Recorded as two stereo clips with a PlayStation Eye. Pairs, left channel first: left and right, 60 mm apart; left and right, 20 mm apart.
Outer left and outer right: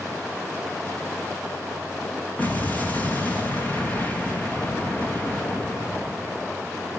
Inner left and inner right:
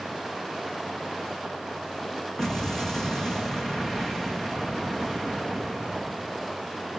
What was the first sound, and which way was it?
An explosion, 25° left (ahead or behind).